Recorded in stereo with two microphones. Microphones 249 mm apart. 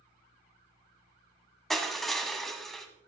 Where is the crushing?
Centre (ahead or behind), 1.2 m.